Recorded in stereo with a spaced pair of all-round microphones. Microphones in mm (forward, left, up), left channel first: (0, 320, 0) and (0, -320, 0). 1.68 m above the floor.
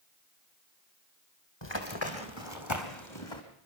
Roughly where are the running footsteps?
Left.